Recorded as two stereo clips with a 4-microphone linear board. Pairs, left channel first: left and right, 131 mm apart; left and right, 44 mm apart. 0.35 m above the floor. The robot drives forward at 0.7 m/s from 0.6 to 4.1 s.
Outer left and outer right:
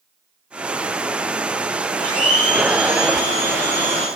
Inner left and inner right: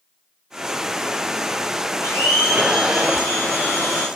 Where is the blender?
80° left, 4.5 m; by 4.1 s 65° left (ahead or behind), 5 m.